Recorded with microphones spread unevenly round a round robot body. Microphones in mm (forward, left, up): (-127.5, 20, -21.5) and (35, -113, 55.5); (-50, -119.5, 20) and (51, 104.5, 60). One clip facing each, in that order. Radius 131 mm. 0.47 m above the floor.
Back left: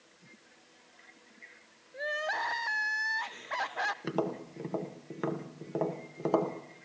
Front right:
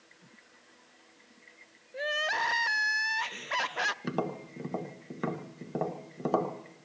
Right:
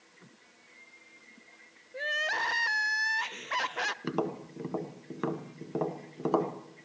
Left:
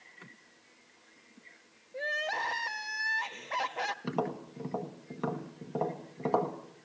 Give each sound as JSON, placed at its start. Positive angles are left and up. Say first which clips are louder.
{"t": 1.9, "sound": "crying", "louder": "front right 2 dB, left 1 dB", "azimuth_deg": -95, "distance_m": 0.6}
{"t": 4.0, "sound": "tapping", "louder": "back left 1 dB, right 2 dB", "azimuth_deg": -155, "distance_m": 1.8}